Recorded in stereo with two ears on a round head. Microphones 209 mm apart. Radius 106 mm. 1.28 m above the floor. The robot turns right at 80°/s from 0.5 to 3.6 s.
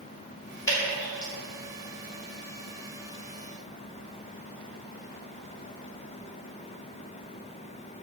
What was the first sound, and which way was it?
Dripping, 15° left (ahead or behind).